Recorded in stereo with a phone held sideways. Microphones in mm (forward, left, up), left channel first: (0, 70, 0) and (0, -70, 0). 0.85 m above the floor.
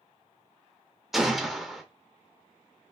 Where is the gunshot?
Centre (ahead or behind), 0.5 m.